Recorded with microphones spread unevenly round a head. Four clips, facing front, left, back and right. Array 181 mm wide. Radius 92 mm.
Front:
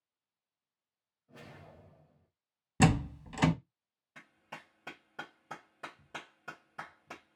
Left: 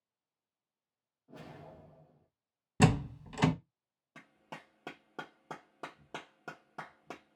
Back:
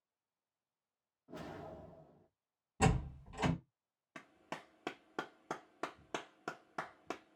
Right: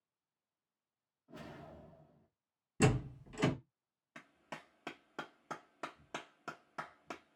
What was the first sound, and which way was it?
A whoosh, 160° left.